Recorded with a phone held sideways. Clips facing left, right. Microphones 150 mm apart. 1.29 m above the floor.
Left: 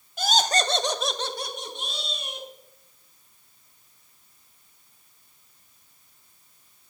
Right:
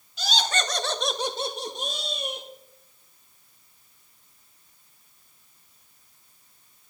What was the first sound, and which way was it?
Laughter, 55° left (ahead or behind).